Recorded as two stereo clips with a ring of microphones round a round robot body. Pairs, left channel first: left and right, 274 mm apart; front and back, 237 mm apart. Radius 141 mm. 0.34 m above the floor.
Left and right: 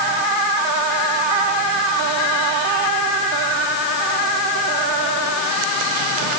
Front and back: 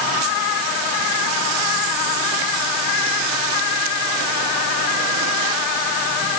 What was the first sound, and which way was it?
Only background noise.